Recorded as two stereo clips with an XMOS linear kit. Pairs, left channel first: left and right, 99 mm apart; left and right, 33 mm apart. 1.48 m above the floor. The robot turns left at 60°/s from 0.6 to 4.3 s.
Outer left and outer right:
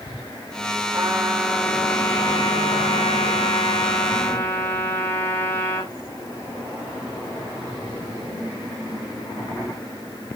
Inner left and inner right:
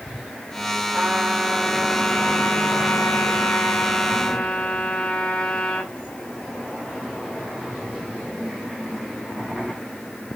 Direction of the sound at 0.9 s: 135° right.